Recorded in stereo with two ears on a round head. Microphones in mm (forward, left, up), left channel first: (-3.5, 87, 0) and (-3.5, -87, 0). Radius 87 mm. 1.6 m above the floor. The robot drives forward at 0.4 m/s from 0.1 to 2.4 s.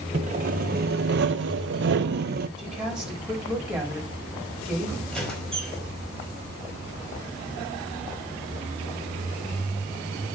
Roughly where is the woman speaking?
Centre.